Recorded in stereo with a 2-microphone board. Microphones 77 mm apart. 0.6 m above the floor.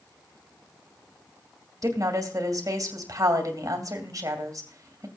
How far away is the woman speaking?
About 2.5 m.